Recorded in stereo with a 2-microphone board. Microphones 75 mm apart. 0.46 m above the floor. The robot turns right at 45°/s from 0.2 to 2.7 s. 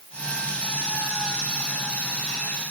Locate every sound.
Only background noise.